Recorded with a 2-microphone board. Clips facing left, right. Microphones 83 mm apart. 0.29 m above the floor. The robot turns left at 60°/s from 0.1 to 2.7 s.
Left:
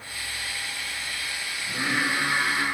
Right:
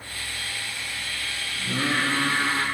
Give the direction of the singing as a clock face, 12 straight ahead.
3 o'clock.